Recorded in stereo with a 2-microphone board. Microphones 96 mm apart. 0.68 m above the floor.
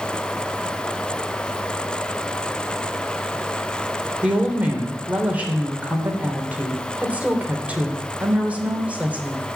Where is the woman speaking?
15° right (ahead or behind), 3 m.